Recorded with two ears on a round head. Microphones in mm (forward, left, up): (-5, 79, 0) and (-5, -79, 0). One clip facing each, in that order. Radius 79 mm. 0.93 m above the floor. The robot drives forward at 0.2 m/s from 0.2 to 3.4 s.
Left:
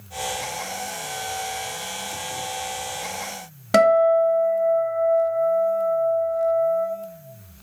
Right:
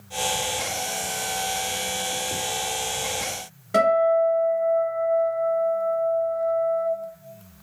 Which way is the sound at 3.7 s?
85° left.